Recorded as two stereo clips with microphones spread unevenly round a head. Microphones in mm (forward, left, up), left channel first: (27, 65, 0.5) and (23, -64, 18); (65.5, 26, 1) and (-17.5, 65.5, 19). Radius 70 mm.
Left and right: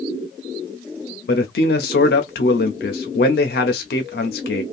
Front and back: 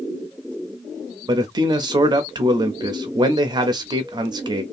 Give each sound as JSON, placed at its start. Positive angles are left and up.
{"t": 1.3, "sound": "a man speaking", "azimuth_deg": 110, "distance_m": 0.6}